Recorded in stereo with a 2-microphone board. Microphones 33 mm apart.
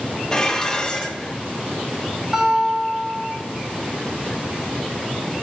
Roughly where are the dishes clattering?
Centre.